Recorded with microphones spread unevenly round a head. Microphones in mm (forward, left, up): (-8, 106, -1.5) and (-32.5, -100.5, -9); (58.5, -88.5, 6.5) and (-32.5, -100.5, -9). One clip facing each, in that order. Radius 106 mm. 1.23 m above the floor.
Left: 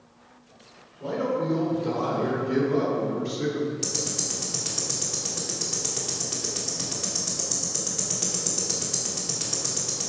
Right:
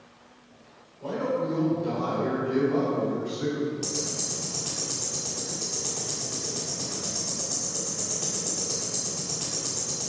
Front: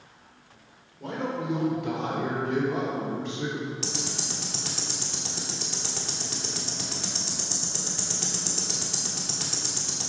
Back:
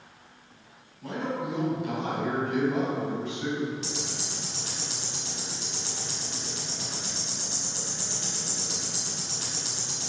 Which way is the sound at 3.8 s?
20° left.